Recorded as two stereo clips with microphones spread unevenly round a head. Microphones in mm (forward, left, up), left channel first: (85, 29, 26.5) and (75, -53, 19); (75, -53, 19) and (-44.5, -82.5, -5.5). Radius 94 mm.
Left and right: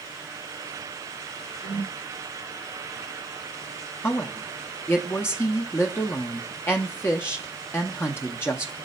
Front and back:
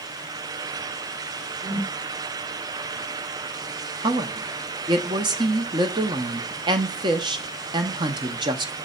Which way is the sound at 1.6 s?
145° left.